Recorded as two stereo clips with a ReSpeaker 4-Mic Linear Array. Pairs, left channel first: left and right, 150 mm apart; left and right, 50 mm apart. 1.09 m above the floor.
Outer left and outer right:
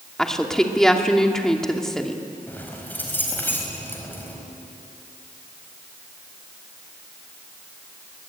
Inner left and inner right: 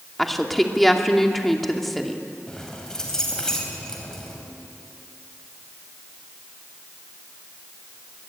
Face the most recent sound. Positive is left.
turn(degrees=15)  # may be behind; listen again after turning